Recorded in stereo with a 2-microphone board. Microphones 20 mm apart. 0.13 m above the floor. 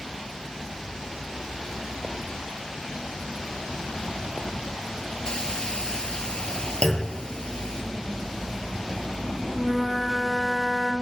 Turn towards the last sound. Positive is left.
turn(degrees=5)  # may be behind; listen again after turning